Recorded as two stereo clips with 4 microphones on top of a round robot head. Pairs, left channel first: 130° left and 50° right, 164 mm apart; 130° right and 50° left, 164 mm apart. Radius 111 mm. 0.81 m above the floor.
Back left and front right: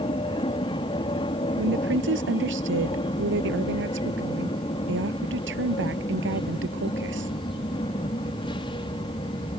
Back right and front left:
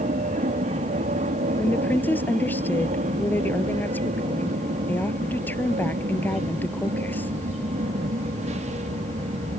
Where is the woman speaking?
50° right.